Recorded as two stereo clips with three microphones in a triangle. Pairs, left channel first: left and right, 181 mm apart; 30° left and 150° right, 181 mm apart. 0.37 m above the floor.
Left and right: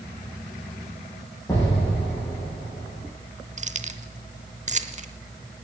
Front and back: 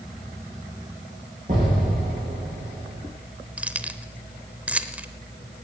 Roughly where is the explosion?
Behind.